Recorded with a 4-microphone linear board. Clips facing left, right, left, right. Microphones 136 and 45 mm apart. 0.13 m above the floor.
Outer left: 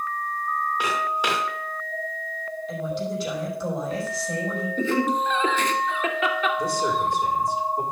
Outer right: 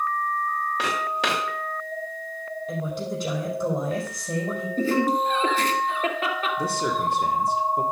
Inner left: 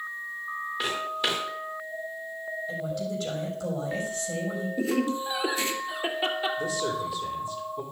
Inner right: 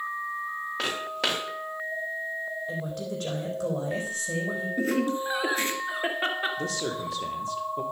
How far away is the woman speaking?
About 4.5 m.